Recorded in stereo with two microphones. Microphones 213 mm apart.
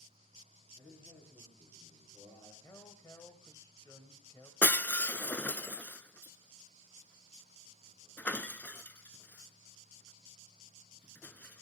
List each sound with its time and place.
0.8 s a man speaking: 15° left (ahead or behind), 5.5 m
2.6 s a man speaking: 15° left (ahead or behind), 1.0 m
4.6 s breaking glass: 10° left (ahead or behind), 0.6 m